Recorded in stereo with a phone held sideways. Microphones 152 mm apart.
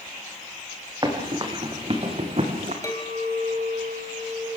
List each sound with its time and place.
1.0 s running footsteps: 30° right (ahead or behind), 5 m; by 2.7 s 55° right (ahead or behind), 3.5 m
2.8 s a clink: 20° left (ahead or behind), 3.5 m